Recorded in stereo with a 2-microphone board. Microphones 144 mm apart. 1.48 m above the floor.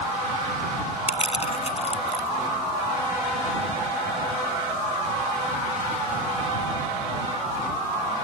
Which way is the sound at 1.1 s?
45° left (ahead or behind).